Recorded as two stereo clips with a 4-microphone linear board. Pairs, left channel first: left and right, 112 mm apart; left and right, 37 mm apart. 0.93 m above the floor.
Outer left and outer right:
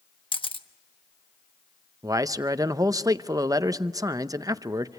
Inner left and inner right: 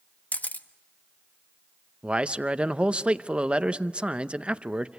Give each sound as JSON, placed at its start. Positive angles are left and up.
{"t": 0.3, "sound": "a camera shutter", "side_deg": 45, "distance_m": 1.1}
{"t": 2.0, "sound": "a man speaking", "side_deg": -30, "distance_m": 0.7}